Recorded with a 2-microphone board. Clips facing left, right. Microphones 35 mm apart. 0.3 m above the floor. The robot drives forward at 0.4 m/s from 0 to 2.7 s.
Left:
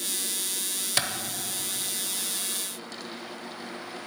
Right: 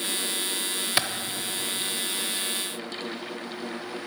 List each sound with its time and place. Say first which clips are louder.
1.0 s a clap: right 2 dB; 20° right (ahead or behind), 0.7 m